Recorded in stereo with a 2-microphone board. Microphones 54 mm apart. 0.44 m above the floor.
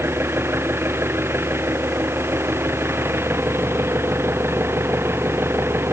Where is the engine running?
50° right (ahead or behind).